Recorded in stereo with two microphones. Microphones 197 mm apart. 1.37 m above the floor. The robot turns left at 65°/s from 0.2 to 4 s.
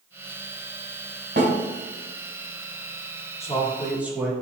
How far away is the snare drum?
About 2.5 m.